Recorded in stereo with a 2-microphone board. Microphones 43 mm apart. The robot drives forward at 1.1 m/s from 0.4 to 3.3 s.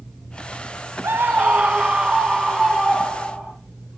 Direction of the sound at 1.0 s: 65° right (ahead or behind).